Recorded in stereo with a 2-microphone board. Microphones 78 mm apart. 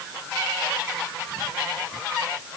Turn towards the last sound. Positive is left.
No sound to turn to.